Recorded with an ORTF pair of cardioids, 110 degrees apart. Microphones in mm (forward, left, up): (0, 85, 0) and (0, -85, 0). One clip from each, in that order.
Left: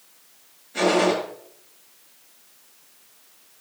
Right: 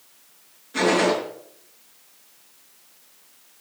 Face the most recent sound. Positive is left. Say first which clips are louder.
# even
turn(degrees=-60)